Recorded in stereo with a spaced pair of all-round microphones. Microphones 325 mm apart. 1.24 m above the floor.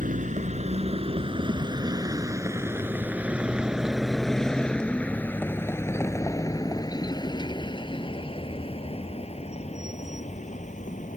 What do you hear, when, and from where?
0.0 s a vehicle: 25° right (ahead or behind); by 11.2 s 25° left (ahead or behind)